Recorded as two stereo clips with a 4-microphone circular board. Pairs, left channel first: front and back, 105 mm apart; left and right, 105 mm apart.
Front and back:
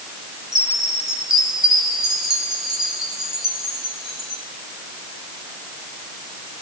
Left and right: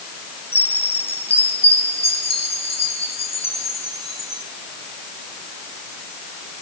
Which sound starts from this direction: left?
A chime, at 0.5 s.